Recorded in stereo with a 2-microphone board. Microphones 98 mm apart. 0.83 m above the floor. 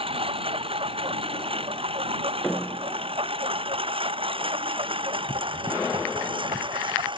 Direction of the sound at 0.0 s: 90° right.